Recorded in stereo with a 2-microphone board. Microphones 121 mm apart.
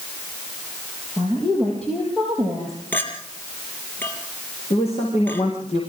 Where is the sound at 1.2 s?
10° left (ahead or behind), 5.5 m; by 2.8 s centre (ahead or behind), 5.5 m.